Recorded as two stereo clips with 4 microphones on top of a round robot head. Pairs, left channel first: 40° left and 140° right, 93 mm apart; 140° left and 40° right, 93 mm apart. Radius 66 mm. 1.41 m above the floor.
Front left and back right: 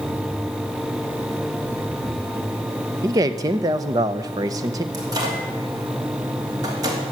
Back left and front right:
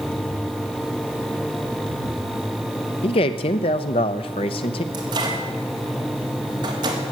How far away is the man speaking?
About 0.7 m.